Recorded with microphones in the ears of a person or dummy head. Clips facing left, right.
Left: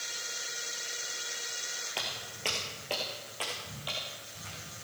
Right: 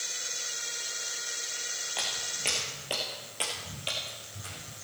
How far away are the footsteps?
About 2 m.